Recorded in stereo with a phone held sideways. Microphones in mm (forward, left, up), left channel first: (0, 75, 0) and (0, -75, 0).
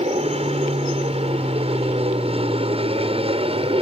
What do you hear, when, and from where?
0.0 s an aircraft: 40° right (ahead or behind)